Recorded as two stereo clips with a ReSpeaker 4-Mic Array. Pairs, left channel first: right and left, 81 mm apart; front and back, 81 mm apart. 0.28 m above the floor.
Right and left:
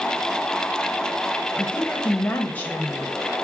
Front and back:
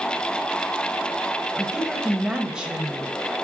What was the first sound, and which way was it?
A woman speaking, 120° right.